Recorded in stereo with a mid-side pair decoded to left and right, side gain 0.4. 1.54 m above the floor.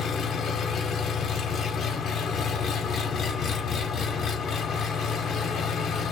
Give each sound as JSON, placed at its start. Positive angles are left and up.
{"t": 0.0, "sound": "an engine running", "azimuth_deg": 60, "distance_m": 0.8}